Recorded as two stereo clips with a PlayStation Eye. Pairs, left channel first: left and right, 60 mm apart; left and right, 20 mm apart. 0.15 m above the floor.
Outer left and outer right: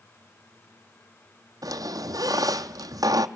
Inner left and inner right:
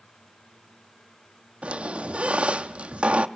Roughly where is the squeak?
Right.